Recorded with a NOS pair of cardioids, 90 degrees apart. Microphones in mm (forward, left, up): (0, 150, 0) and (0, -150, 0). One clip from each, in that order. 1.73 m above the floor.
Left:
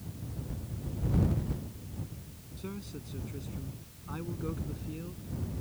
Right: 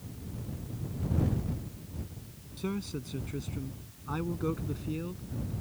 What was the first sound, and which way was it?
A man speaking, 50° right.